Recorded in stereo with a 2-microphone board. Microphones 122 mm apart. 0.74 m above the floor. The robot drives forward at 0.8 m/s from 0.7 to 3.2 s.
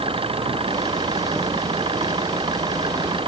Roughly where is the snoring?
I don't hear snoring.